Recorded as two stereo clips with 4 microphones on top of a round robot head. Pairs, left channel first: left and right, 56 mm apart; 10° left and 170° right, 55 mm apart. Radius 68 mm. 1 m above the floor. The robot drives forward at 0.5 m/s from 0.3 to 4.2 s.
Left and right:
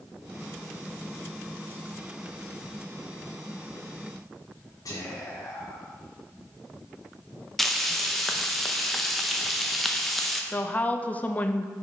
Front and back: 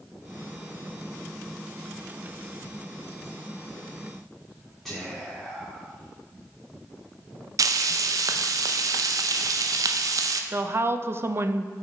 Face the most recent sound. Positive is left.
turn(degrees=150)